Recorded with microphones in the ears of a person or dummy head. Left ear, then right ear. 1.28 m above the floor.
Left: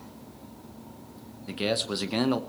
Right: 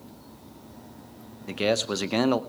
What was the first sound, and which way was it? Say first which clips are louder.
A man speaking: right 3 dB; 15° right (ahead or behind).